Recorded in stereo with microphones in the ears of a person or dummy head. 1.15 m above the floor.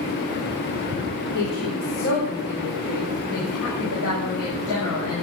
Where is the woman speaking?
60° left (ahead or behind), 4 m; by 5.2 s 70° left (ahead or behind), 7 m.